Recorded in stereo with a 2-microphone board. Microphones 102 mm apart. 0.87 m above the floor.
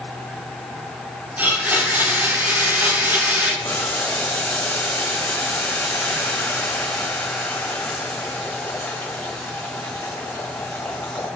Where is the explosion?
I don't hear an explosion.